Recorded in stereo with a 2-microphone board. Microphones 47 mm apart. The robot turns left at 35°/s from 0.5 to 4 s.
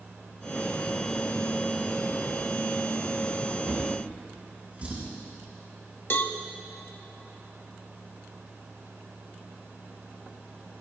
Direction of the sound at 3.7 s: 25° right (ahead or behind).